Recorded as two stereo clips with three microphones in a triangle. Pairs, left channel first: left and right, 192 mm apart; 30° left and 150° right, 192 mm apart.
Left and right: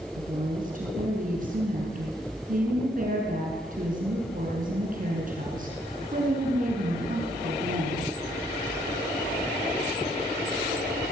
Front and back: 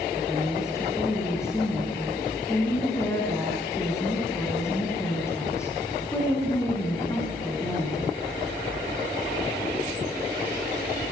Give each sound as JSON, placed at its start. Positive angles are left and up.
{"t": 0.2, "sound": "a woman speaking", "azimuth_deg": -45, "distance_m": 6.0}